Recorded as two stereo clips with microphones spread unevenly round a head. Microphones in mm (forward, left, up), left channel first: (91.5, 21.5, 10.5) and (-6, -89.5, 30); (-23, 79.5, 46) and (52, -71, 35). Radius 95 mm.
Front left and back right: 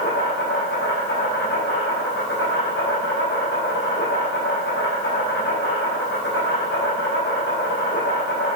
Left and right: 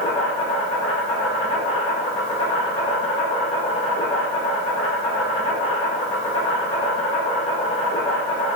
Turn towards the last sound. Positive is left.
turn(degrees=60)